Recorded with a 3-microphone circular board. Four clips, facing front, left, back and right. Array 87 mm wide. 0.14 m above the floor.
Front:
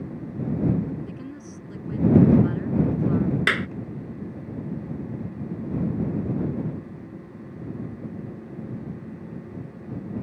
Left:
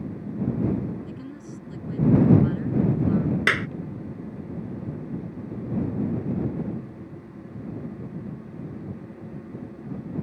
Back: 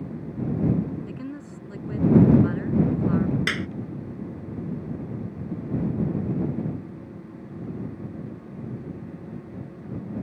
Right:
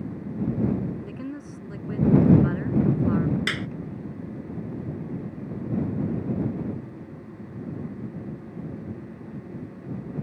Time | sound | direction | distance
1.1 | a woman speaking | 120° right | ?
3.5 | a clap | 55° left | ?